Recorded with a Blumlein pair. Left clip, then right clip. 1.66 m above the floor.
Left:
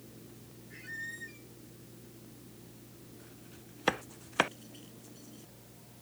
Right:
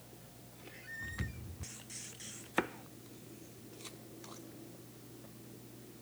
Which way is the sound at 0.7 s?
10° left.